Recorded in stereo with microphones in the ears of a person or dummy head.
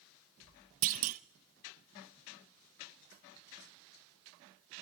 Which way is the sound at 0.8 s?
45° right (ahead or behind).